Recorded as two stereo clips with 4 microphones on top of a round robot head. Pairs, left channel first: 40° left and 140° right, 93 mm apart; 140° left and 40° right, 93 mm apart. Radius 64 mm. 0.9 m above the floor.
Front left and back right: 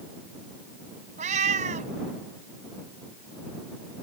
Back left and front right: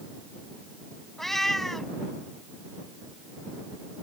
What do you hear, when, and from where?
1.2 s a cat meowing: 135° right